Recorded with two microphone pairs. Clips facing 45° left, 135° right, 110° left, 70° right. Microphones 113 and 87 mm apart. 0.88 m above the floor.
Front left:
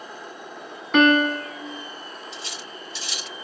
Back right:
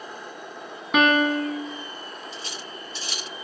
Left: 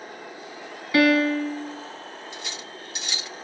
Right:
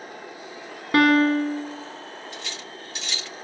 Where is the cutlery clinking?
Straight behind, 1.0 m.